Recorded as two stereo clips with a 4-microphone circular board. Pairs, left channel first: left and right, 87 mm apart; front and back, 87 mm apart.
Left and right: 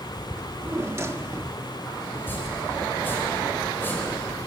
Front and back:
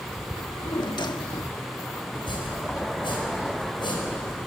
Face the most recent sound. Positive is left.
turn(degrees=25)